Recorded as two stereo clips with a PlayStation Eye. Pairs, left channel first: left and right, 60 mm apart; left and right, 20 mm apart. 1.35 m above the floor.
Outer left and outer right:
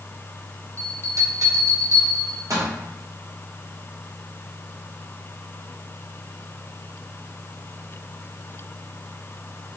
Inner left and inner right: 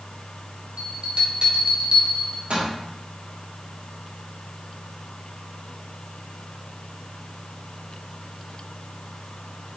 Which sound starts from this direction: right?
A bell, at 0.8 s.